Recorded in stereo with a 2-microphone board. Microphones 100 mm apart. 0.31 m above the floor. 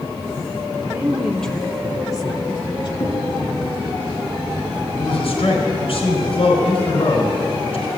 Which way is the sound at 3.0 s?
25° left (ahead or behind).